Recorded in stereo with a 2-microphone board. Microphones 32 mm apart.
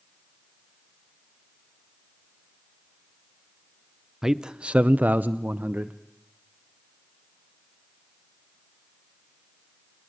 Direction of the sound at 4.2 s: 15° right (ahead or behind).